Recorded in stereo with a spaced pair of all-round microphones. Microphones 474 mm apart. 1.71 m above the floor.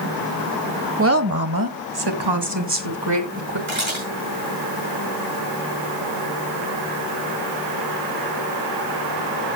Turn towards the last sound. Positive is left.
turn(degrees=-80)